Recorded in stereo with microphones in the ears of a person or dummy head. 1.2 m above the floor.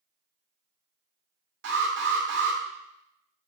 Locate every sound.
1.6 s an alarm: 70° right (ahead or behind), 1.4 m